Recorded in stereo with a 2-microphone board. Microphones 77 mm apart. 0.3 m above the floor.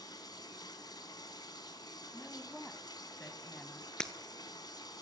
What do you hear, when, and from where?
0.0 s running water: 60° left (ahead or behind), 1.6 m
2.1 s a woman speaking: 15° left (ahead or behind), 1.9 m
4.0 s breaking glass: 10° left (ahead or behind), 1.1 m